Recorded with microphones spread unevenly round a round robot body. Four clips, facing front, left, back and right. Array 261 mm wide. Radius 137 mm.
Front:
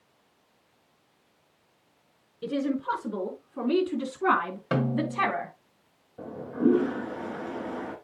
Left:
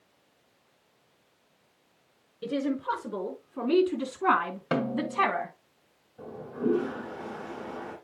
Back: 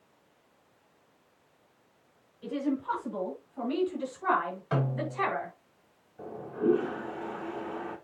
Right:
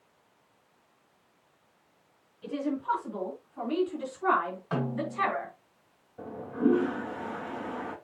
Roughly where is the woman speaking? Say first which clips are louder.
Left 2 dB, front 3 dB; ahead left.